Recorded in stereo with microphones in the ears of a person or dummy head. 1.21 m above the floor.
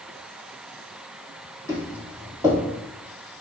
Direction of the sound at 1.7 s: 15° left (ahead or behind).